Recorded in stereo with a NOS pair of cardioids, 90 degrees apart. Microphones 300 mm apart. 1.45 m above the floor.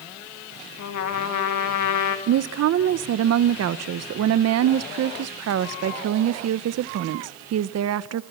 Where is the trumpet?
65° left, 2.5 m.